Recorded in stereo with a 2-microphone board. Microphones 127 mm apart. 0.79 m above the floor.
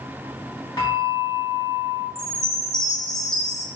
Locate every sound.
0.8 s a bell: 30° left (ahead or behind), 1.3 m
2.1 s a chime: 5° left (ahead or behind), 0.7 m